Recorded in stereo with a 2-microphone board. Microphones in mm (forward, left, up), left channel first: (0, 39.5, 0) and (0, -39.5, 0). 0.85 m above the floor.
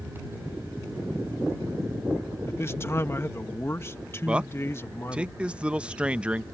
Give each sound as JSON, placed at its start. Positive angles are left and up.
{"t": 2.5, "sound": "a man speaking", "side_deg": 30}
{"t": 4.2, "sound": "a man speaking", "side_deg": -10}